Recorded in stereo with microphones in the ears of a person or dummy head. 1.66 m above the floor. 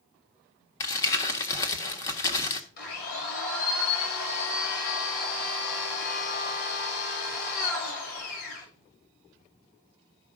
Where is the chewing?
No chewing in this recording.